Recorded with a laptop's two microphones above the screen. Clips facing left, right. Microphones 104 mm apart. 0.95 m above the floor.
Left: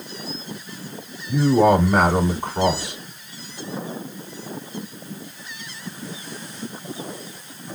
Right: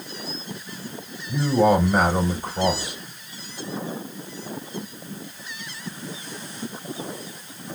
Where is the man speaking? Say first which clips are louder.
Left 3 dB; 70° left (ahead or behind), 2 m.